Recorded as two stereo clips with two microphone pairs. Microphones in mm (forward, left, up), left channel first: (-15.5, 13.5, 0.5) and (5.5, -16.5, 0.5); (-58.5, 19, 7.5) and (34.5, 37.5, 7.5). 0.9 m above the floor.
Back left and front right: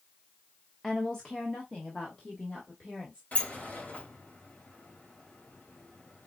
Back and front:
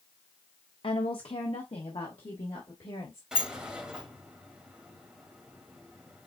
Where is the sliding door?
90° left, 1.6 m.